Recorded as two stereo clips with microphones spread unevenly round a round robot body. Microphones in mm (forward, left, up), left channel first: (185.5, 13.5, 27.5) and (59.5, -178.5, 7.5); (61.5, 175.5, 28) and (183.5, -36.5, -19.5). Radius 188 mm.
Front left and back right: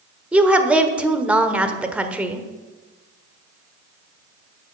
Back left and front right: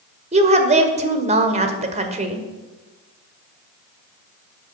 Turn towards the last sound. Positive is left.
turn(degrees=-50)